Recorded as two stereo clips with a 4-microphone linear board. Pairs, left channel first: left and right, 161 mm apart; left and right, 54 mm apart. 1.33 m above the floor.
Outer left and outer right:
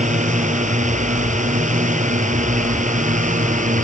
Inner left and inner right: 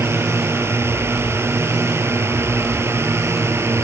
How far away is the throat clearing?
I don't hear throat clearing.